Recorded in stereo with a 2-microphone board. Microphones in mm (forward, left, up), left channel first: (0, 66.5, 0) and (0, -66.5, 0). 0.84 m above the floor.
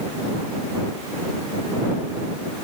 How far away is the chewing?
No chewing in this recording.